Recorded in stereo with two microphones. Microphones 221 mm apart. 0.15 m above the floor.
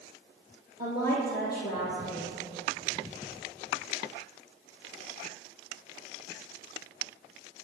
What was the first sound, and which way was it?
A woman speaking, 45° left (ahead or behind).